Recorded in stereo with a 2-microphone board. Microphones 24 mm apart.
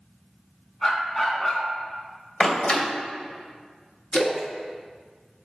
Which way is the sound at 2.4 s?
55° left (ahead or behind).